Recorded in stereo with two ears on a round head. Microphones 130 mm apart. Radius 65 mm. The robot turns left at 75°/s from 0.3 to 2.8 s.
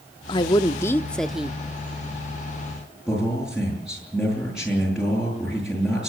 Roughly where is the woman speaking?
Left.